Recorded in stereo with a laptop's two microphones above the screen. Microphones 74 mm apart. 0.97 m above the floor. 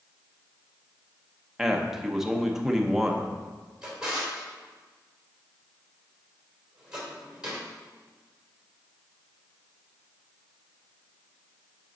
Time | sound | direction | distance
1.6 | a man speaking | 5° right (ahead or behind) | 0.6 m
3.8 | a drawer | 10° right (ahead or behind) | 2.5 m